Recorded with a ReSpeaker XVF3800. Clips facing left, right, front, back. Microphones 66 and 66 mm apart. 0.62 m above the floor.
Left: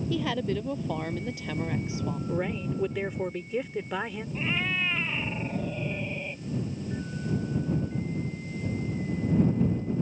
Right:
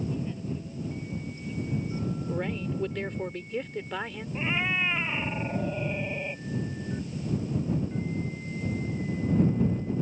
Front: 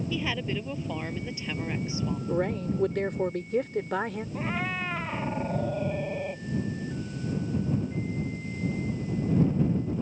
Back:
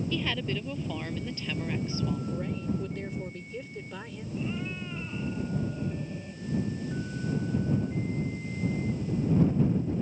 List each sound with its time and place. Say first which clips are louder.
0.1 s a woman speaking: left 6 dB, front 1 dB; 80° left; by 2.2 s 75° left
2.3 s a woman speaking: left 3 dB, front 5 dB; 5° left
4.3 s a cat meowing: right 2 dB, front 2 dB; 15° right